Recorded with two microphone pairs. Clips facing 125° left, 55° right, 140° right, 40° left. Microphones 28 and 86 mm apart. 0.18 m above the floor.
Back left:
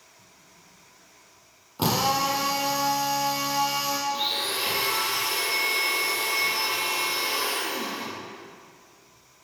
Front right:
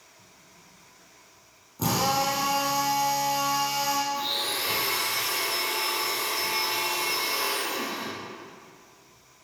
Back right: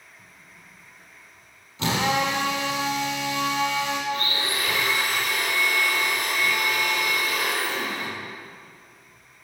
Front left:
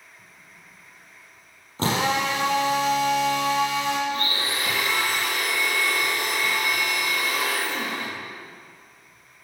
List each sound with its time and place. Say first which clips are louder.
1.8 s a drill: back left 1 dB, even; 90° left, 3.5 m
4.1 s a blender: back left 1 dB, even; 95° left, 4.5 m